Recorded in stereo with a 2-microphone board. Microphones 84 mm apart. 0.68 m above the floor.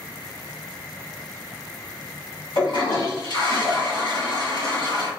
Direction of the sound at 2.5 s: 60° left (ahead or behind).